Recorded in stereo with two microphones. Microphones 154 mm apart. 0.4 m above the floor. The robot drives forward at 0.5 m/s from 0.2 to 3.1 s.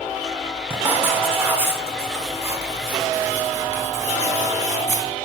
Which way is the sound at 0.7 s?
15° right (ahead or behind).